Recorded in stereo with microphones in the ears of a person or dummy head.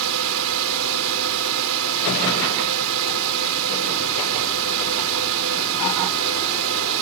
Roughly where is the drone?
Right.